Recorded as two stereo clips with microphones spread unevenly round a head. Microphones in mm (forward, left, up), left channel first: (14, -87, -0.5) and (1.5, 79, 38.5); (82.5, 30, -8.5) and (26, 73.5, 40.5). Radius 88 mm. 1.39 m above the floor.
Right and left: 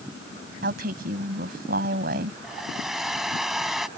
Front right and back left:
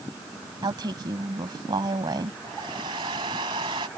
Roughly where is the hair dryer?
Behind.